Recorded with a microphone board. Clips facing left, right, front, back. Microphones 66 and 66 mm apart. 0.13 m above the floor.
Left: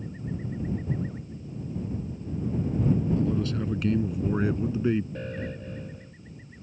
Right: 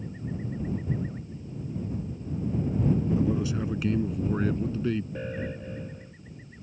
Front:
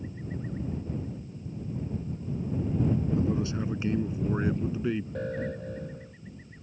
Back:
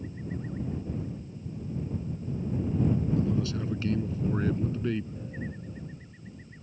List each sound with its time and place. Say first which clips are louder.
3.2 s a man speaking: even, even; 35° right; by 5.0 s 70° left
5.2 s an alarm: right 1 dB, front 6 dB; 10° right